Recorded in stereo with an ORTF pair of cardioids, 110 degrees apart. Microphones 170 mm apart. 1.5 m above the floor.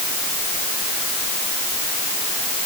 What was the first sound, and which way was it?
Only background noise.